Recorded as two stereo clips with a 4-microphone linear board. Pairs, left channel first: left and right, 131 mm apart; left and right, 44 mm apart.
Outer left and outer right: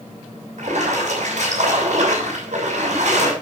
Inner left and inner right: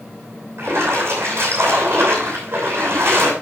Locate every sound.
0.6 s a splash: 60° right (ahead or behind), 6.5 m